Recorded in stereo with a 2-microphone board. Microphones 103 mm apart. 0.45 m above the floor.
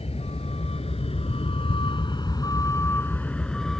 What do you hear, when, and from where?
0.0 s a vehicle: 85° left; by 3.8 s 5° left (ahead or behind)